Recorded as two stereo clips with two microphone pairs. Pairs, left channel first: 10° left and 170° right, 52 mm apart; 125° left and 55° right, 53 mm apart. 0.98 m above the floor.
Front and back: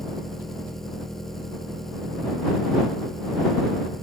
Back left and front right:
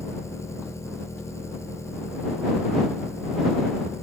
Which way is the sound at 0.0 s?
95° left.